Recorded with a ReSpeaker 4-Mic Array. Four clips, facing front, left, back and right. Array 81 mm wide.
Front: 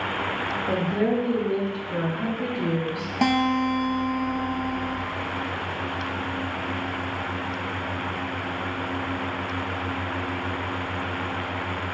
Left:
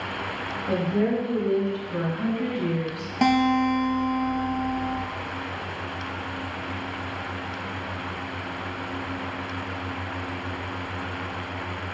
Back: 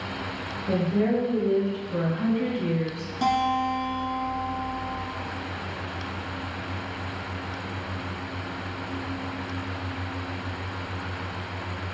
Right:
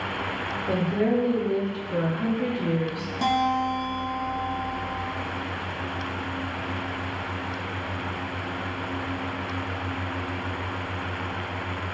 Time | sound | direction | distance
0.7 | a woman speaking | 10° right | 1.7 m
3.2 | a guitar | 45° left | 0.6 m